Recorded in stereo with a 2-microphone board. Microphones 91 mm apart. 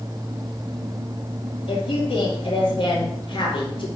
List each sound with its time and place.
1.7 s a woman speaking: 75° left (ahead or behind), 3 m